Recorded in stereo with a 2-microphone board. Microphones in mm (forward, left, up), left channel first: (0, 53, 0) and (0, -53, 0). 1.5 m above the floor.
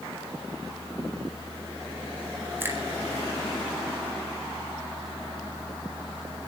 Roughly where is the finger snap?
Right.